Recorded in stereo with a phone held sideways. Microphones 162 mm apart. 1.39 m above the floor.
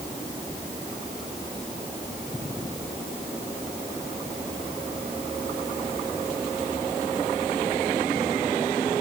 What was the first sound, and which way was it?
Only background noise.